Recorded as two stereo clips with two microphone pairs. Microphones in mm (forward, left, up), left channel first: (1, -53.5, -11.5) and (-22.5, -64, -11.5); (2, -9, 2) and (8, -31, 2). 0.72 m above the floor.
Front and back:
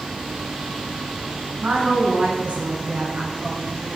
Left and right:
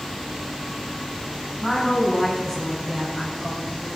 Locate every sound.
1.6 s a woman speaking: 165° right, 8 m